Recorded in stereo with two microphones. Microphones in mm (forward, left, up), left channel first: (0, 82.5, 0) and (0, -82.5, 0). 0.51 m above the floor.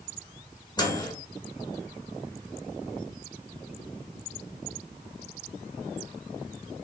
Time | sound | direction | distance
0.8 | a microwave | 25° left (ahead or behind) | 1.7 m